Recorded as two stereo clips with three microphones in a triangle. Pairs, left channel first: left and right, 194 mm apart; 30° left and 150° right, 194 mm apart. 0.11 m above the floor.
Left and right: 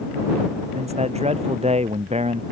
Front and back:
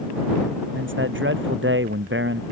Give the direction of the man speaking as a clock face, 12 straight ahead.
5 o'clock.